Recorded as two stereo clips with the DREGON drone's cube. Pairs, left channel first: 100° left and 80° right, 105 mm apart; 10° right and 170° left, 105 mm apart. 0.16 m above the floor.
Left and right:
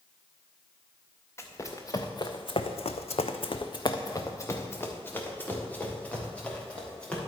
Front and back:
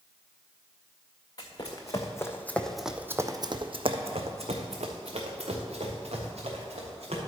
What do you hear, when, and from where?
1.4 s running footsteps: 35° left, 1.3 m; by 7.2 s straight behind, 3 m